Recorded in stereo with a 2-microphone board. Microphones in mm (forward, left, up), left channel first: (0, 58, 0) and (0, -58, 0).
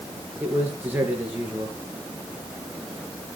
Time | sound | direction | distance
0.4 | a man speaking | 15° right (ahead or behind) | 3 m